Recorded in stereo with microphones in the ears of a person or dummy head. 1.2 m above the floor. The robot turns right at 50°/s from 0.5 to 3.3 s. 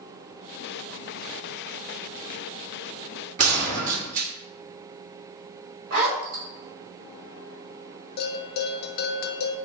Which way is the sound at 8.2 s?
55° left (ahead or behind).